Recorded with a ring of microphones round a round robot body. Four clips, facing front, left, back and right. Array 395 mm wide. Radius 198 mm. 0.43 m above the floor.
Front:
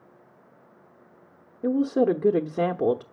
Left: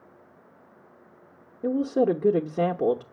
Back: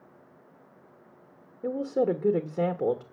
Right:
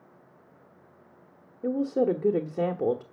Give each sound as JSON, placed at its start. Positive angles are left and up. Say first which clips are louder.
{"t": 1.6, "sound": "a woman speaking", "louder": "left 2 dB, front 5 dB", "azimuth_deg": 25, "distance_m": 0.9}